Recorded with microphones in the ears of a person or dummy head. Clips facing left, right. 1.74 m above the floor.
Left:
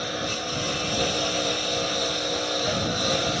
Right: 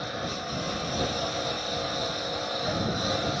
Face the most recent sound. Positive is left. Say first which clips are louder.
# left 3 dB
turn(degrees=30)  # may be behind; listen again after turning